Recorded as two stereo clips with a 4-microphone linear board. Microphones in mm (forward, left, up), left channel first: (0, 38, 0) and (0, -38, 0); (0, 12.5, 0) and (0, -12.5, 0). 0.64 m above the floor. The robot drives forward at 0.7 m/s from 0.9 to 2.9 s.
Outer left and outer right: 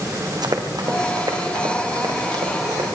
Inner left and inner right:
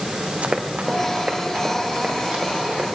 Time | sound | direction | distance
0.4 | running footsteps | 65° right (ahead or behind) | 2 m